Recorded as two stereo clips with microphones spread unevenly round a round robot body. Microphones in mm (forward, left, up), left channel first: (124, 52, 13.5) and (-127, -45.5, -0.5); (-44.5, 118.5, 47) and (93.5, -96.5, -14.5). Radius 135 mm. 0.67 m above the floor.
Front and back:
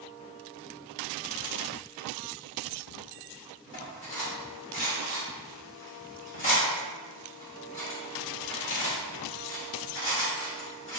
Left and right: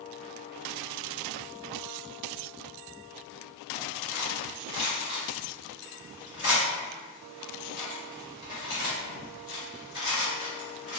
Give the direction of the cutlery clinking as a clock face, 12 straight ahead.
10 o'clock.